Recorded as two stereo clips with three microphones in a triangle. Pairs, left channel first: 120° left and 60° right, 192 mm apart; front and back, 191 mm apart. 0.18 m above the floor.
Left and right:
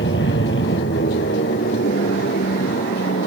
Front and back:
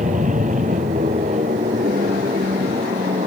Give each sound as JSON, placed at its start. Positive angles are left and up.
{"t": 0.0, "sound": "an aircraft", "azimuth_deg": 130}